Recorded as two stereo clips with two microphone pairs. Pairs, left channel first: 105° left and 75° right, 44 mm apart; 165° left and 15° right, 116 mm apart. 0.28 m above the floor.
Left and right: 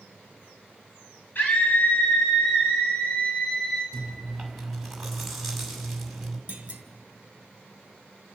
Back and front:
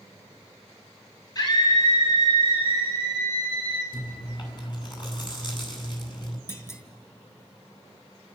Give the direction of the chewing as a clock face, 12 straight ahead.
5 o'clock.